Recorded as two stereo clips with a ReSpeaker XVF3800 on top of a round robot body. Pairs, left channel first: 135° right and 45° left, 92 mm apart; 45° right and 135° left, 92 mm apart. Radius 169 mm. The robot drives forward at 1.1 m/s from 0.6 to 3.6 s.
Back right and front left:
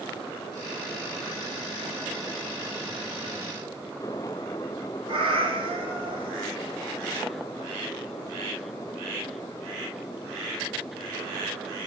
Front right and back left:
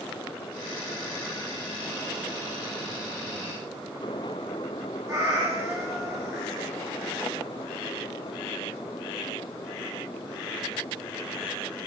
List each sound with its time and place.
5.1 s a cat meowing: 75° left, 8.5 m